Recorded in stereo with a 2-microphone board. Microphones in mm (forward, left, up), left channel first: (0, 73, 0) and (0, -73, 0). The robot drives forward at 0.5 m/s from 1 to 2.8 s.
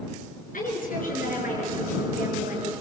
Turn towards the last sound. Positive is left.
turn(degrees=75)  # may be behind; listen again after turning